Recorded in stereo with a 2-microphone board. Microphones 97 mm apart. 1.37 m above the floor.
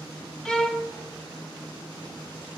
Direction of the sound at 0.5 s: 5° left (ahead or behind).